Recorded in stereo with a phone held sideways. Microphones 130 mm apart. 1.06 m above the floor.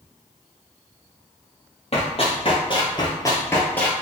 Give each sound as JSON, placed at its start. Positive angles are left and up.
{"t": 1.9, "sound": "running footsteps", "side_deg": 50, "distance_m": 1.6}